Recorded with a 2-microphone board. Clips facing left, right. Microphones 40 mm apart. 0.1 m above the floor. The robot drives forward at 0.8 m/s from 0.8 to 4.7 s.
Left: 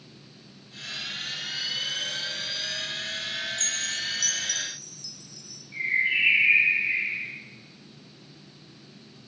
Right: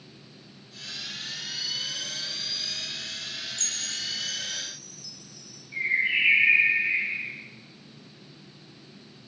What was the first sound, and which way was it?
A chime, 45° right (ahead or behind).